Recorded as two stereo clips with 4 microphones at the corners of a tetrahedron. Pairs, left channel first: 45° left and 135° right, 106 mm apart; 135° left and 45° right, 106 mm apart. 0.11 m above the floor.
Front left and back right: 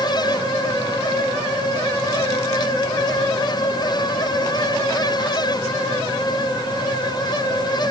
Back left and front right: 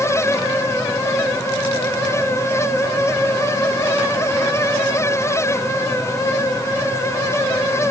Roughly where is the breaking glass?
No breaking glass in this recording.